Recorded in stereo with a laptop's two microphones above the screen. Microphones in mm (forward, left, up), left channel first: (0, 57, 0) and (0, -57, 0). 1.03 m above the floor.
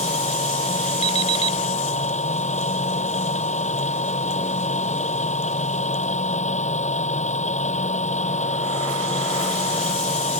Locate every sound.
0.0 s a machine running: 85° left
1.0 s an alarm clock: 70° left (ahead or behind)